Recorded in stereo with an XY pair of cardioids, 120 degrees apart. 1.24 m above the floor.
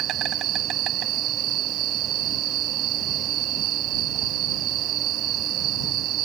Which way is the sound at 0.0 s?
70° right.